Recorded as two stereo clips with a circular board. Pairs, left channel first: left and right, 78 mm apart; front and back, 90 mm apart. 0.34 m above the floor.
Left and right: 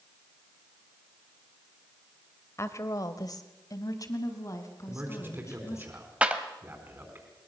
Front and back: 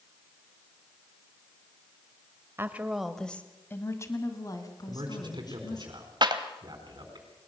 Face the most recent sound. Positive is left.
turn(degrees=-160)